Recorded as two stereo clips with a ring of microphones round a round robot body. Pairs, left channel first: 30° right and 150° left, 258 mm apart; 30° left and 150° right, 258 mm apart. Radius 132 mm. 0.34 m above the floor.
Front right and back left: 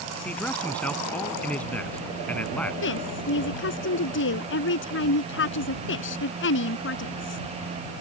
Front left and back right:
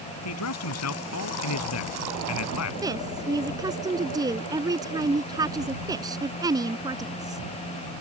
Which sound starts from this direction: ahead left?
A man speaking, at 0.2 s.